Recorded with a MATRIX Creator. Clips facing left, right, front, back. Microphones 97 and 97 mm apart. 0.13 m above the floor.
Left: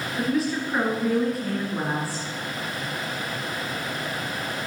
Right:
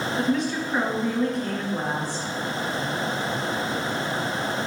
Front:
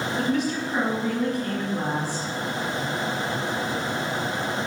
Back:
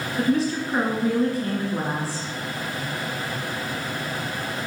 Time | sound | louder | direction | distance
0.2 | a woman speaking | left 1 dB, back 4 dB | 175° left | 1.9 m